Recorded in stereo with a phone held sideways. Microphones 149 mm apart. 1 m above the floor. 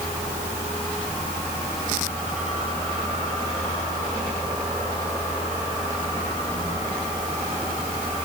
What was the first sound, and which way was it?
Only background noise.